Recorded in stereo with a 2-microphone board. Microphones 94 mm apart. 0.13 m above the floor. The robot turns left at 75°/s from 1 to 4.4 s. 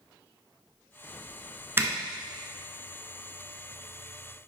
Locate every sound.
1.8 s a zipper: 25° right (ahead or behind), 0.8 m; by 1.9 s 20° right (ahead or behind), 0.8 m